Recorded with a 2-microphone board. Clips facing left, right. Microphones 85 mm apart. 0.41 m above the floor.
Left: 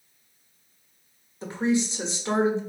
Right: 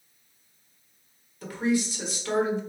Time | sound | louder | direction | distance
1.4 | a woman speaking | left 1 dB | 25° left (ahead or behind) | 1.0 m